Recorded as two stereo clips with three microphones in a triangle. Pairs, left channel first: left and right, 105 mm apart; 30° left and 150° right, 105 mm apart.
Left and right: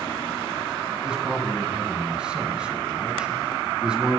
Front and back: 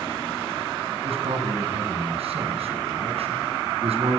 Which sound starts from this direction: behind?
A man speaking, at 1.0 s.